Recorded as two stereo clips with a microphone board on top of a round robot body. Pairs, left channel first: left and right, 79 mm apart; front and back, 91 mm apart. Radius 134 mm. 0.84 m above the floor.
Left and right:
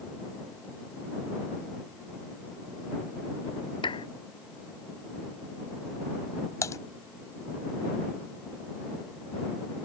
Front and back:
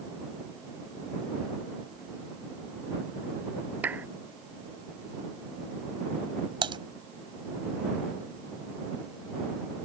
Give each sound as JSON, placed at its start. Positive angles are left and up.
{"t": 3.8, "sound": "a clap", "azimuth_deg": 105}
{"t": 6.6, "sound": "typing on a keyboard", "azimuth_deg": 145}